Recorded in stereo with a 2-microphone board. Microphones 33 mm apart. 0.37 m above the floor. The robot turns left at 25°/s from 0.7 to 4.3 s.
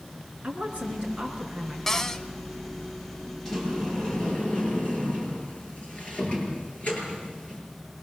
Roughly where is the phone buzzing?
I don't hear a phone buzzing.